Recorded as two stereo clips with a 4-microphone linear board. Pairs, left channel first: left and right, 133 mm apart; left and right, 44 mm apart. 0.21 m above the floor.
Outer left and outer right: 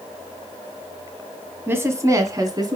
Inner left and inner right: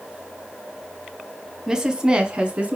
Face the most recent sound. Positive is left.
turn(degrees=-30)  # may be behind; listen again after turning